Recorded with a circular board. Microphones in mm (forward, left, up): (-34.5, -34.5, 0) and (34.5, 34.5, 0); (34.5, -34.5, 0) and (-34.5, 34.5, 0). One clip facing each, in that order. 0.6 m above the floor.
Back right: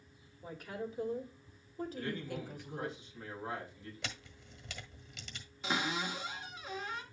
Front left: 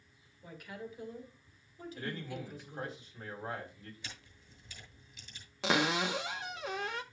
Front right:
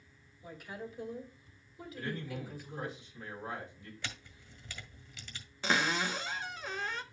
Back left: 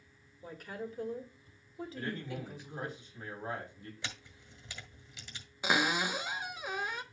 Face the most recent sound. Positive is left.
turn(degrees=60)